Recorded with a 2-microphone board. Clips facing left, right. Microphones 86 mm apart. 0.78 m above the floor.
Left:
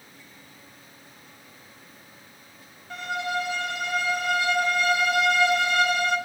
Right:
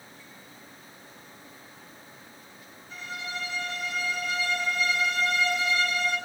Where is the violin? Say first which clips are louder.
Left 9 dB; 65° left (ahead or behind), 4.5 m.